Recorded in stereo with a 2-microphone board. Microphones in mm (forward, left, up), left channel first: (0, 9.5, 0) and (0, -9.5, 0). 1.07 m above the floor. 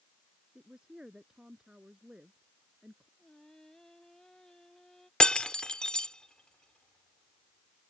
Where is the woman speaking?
40° right (ahead or behind).